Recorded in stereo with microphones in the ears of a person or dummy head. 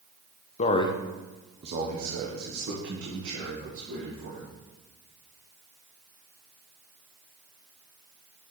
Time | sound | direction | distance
0.6 | a man speaking | 40° left (ahead or behind) | 0.8 m